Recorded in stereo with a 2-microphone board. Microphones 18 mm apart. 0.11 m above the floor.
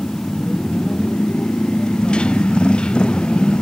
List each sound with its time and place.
0.0 s a motorcycle: 70° left (ahead or behind)